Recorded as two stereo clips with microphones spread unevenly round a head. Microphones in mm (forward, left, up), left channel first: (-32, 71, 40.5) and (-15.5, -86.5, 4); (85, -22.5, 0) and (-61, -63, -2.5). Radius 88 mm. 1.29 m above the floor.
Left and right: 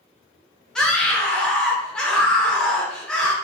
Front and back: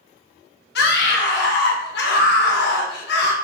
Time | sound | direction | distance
0.8 | a scream | 10° left | 1.2 m